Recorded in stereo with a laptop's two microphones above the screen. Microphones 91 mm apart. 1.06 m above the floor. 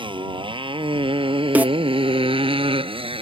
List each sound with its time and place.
0.0 s a motorcycle: 65° right (ahead or behind); by 3.2 s 85° right
1.6 s a snare drum: 20° right (ahead or behind)